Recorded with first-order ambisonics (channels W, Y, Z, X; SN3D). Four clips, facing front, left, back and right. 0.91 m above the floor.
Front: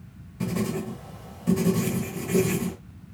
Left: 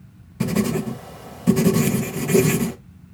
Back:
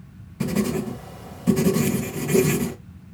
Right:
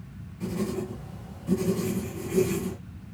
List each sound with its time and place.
0.4 s writing: 110° left, 1.2 m